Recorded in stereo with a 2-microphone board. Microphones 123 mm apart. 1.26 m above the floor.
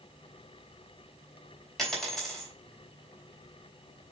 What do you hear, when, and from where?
1.8 s a dropped coin: 5° left (ahead or behind), 3 m